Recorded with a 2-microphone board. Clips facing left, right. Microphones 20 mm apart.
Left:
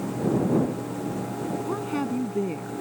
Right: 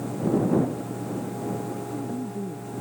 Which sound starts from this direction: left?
A woman speaking, at 1.7 s.